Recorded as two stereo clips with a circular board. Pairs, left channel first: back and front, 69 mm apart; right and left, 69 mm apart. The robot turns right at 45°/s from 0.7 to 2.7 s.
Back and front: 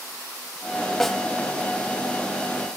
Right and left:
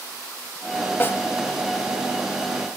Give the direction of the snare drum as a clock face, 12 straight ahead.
3 o'clock.